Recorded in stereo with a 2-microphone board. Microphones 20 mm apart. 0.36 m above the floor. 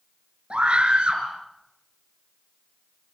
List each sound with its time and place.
0.5 s a scream: 65° right (ahead or behind), 5.5 m